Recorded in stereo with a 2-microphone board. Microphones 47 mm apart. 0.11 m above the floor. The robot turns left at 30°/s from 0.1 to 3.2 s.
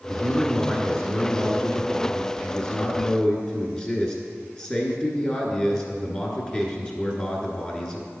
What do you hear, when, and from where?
0.1 s a man speaking: 5° left (ahead or behind), 1.1 m; by 8.1 s 20° left (ahead or behind), 1.1 m